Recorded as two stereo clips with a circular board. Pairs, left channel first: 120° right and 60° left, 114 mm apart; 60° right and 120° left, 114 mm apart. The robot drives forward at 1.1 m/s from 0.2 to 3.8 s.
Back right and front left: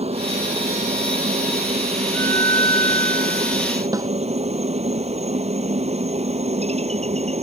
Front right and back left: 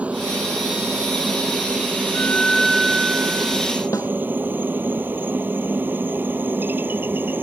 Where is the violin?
95° right; by 3.8 s 170° right.